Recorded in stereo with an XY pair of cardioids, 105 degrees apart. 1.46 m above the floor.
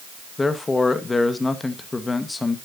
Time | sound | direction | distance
0.4 | a man speaking | 20° left | 1.7 m